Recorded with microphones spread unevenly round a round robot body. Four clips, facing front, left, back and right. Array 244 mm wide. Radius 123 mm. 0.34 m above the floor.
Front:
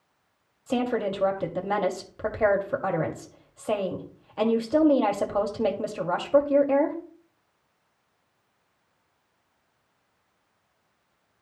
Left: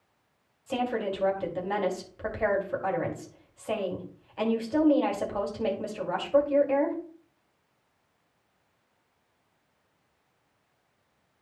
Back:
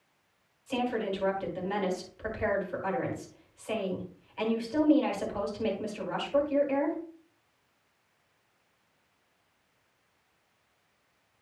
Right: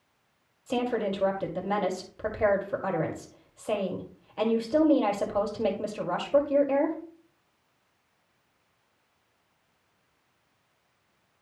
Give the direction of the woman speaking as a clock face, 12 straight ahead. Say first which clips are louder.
Right 1 dB, front 5 dB; 1 o'clock.